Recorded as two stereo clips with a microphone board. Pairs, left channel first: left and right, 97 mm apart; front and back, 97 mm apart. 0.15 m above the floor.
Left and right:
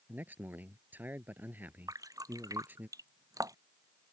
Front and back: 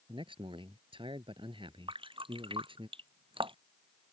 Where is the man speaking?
160° right.